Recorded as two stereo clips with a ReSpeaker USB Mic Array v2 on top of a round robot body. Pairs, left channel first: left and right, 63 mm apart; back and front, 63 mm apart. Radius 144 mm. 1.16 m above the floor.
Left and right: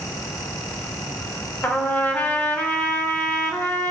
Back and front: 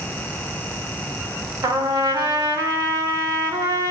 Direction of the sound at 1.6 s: 25° left.